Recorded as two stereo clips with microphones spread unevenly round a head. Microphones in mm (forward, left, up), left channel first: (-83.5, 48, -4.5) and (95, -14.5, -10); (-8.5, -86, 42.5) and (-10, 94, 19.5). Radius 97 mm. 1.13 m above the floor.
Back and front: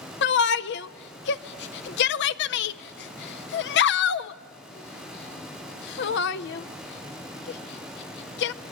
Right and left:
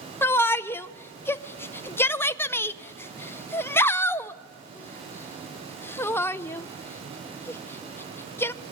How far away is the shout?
About 0.5 m.